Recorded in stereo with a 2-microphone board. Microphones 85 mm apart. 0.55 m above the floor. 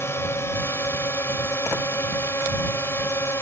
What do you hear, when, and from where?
0.0 s a drone: 30° left (ahead or behind)